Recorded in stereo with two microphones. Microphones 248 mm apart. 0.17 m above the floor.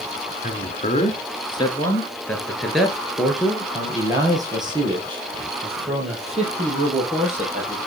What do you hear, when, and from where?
0.4 s a man speaking: 35° left (ahead or behind), 2 m; by 7.9 s 30° right (ahead or behind), 5.5 m